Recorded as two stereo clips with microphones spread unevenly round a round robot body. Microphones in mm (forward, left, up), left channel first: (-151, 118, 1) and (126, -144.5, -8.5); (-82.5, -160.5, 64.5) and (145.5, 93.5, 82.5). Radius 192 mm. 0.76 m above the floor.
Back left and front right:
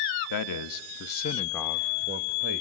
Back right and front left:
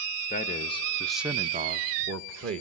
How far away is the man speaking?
About 1.1 m.